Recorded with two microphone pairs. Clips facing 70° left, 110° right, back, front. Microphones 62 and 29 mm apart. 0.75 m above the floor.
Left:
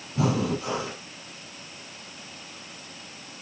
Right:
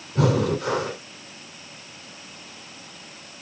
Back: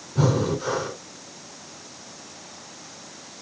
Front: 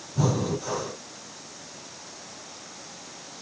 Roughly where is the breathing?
Behind right.